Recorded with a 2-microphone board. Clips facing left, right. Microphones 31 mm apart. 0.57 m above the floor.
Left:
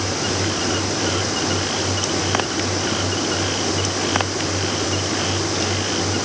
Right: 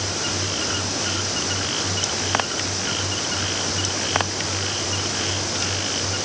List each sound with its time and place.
Only background noise.